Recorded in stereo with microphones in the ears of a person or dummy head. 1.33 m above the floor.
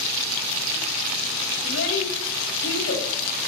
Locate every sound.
1.6 s a child speaking: 80° left, 4.5 m